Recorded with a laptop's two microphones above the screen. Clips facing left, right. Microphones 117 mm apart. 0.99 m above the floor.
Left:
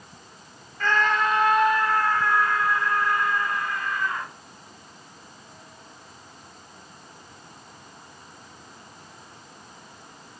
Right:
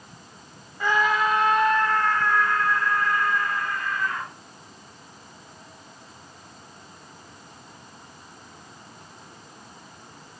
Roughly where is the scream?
Centre.